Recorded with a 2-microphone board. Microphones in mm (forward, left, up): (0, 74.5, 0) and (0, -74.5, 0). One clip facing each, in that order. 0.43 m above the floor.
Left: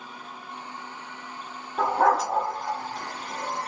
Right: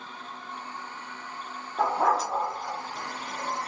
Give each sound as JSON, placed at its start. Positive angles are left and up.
{"t": 1.8, "sound": "a dog barking", "side_deg": 70, "distance_m": 1.4}